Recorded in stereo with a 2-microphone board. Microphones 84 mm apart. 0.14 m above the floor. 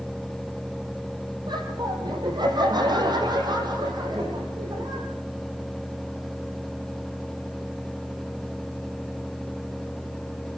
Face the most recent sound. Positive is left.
turn(degrees=-50)  # may be behind; listen again after turning